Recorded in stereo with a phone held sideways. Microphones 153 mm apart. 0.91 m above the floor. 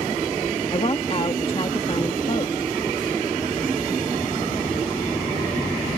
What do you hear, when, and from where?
0.7 s a woman speaking: 40° left (ahead or behind)